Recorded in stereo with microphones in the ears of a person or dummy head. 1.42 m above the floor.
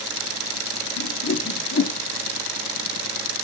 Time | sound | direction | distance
1.0 | a whoosh | 50° left (ahead or behind) | 0.7 m